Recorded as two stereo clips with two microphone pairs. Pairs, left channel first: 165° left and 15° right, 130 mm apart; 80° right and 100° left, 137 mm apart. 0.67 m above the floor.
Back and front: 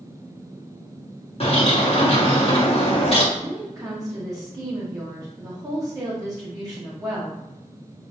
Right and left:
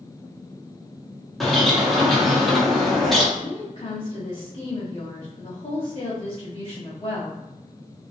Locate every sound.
1.4 s a bird: 170° right, 0.9 m
3.3 s a woman speaking: 60° right, 1.5 m